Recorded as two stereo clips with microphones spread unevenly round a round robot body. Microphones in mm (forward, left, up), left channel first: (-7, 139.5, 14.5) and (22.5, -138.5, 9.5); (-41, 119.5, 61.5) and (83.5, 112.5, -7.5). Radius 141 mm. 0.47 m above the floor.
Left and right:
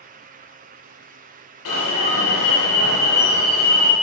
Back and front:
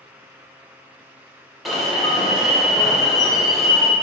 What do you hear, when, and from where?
1.6 s an alarm: 65° left, 2.5 m